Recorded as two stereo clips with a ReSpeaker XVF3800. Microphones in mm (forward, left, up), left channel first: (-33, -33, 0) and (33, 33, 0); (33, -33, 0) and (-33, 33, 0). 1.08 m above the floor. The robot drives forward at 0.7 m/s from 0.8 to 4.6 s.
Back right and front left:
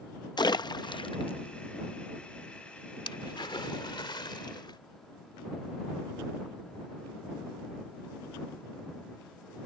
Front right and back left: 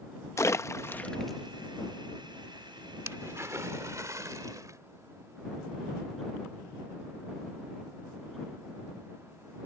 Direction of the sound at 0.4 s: 100° right.